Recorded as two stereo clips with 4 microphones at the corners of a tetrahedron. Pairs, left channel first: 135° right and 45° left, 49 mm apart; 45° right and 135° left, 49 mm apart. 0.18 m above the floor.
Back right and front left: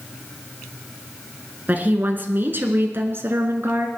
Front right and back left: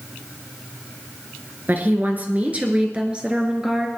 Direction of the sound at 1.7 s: 95° left.